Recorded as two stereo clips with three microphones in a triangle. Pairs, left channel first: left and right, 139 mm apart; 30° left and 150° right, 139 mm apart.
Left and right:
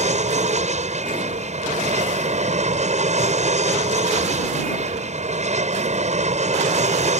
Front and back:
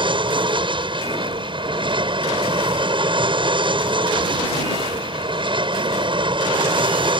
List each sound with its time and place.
0.0 s an aircraft: 105° right